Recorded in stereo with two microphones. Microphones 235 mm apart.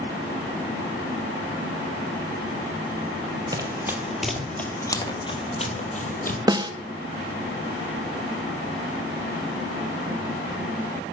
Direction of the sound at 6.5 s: 15° right (ahead or behind).